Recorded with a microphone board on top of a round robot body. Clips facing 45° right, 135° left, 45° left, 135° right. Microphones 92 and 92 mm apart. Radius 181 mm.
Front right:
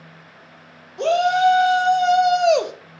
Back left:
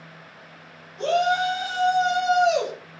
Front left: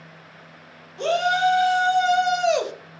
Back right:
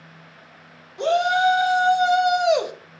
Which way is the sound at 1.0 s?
60° right.